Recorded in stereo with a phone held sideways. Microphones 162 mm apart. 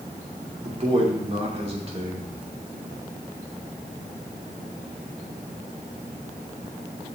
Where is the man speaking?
40° right (ahead or behind), 2.5 m.